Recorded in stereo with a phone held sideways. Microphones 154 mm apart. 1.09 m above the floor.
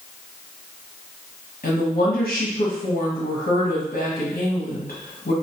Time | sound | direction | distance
1.6 | a woman speaking | 65° left (ahead or behind) | 0.9 m